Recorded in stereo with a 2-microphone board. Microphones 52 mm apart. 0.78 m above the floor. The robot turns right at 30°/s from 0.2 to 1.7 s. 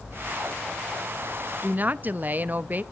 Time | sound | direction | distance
1.6 | a woman speaking | 35° right (ahead or behind) | 0.5 m